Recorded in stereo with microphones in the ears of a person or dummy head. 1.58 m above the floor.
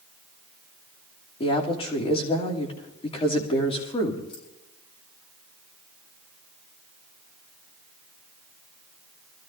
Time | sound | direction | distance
1.4 | a woman speaking | 25° left (ahead or behind) | 3 m
4.3 | keys jangling | 30° left (ahead or behind) | 7 m